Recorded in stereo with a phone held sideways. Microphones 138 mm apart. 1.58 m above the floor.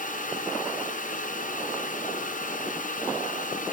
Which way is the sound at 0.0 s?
70° left (ahead or behind).